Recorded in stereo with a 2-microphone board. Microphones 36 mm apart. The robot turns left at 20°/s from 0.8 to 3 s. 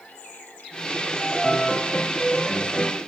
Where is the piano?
10° left (ahead or behind), 1.1 m; by 3.0 s 20° left (ahead or behind), 1.1 m.